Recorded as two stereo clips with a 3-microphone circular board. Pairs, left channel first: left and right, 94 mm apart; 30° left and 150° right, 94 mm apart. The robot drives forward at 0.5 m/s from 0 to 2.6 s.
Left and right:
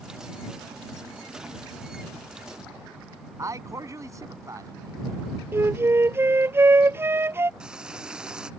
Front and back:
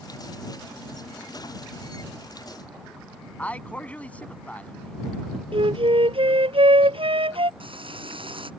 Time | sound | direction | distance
3.4 | a man speaking | 45° right | ?
5.5 | a flute | 155° right | ?
7.6 | frying | 170° right | ?